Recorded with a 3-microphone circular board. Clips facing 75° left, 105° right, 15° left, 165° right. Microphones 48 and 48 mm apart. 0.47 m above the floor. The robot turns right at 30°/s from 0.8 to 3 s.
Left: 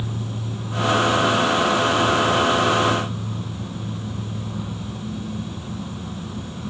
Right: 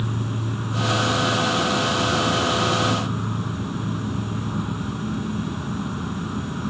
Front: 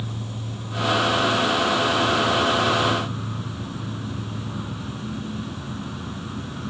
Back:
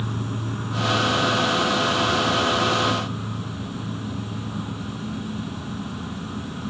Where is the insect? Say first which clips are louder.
Right 2 dB, back 4 dB; 140° right, 0.8 m; by 6.7 s 75° right, 0.8 m.